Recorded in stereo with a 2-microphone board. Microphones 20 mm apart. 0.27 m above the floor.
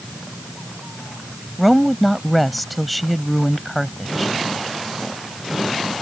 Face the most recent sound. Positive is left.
turn(degrees=0)  # may be behind; listen again after turning